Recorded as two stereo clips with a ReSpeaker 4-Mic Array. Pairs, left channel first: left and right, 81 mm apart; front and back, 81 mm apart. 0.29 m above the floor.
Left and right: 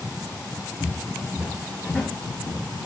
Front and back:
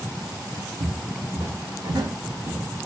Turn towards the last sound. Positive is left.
turn(degrees=140)